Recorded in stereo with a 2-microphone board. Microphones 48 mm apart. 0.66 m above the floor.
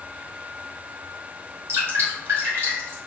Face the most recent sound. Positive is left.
turn(degrees=-55)  # may be behind; listen again after turning